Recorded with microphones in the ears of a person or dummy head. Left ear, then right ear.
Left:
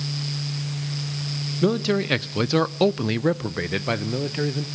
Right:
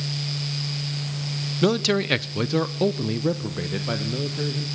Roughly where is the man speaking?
Right.